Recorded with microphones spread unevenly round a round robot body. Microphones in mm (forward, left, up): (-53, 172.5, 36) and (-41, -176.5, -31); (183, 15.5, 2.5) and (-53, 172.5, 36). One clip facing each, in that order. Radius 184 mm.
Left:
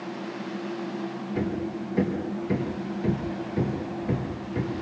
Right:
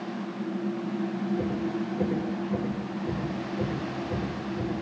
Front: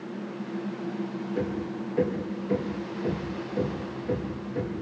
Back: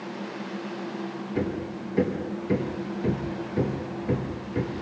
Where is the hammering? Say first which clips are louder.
Left 3 dB, back 2 dB; 100° left, 6.5 m.